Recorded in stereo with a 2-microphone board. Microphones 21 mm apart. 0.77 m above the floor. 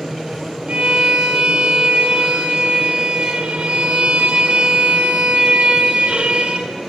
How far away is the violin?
About 3.5 m.